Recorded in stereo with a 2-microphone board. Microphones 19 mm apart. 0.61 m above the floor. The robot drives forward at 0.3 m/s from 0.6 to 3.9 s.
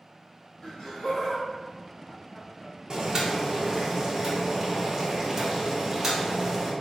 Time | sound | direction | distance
0.6 | laughter | 25° left (ahead or behind) | 1.8 m
2.9 | boiling | 35° right (ahead or behind) | 0.5 m